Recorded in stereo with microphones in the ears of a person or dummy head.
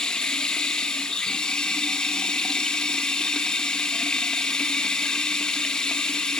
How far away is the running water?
About 1.3 m.